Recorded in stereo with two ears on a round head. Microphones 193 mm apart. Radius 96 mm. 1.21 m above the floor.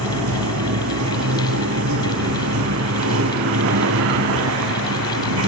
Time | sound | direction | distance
0.0 | running water | 70° right (ahead or behind) | ?